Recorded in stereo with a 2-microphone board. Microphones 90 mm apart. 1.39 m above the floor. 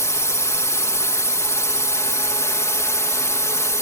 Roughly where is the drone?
Left.